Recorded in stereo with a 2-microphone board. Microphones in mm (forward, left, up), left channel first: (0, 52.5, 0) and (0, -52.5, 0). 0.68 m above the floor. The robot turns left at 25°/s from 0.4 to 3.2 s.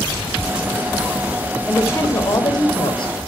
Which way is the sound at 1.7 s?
155° left.